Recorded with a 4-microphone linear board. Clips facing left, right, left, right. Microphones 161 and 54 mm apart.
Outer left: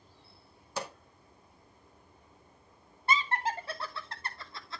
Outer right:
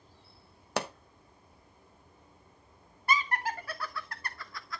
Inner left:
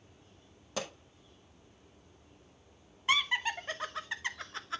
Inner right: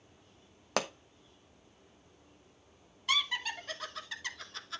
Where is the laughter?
25° left (ahead or behind), 1.1 m.